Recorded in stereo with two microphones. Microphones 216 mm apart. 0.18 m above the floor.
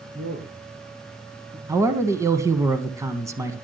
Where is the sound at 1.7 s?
15° right (ahead or behind), 1.3 m.